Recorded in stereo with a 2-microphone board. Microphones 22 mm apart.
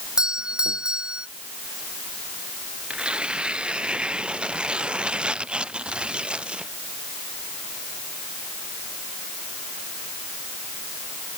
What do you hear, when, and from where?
0.2 s a doorbell: 50° right (ahead or behind)
2.9 s tearing paper: 65° right (ahead or behind)